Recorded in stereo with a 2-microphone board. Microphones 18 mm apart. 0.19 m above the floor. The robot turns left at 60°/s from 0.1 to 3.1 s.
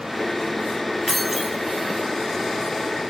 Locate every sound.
1.1 s keys jangling: 10° left, 0.7 m; by 1.6 s 20° right, 0.7 m